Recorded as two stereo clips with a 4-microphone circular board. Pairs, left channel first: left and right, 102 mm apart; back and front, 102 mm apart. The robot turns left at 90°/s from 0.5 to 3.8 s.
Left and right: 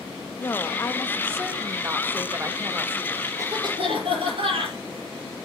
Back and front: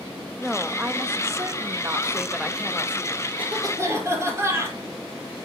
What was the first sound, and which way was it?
A woman speaking, 90° left.